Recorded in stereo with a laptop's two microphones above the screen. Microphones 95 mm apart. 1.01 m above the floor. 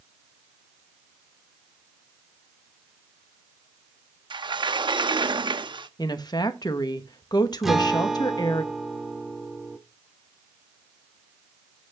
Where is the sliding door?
55° right (ahead or behind), 0.8 m.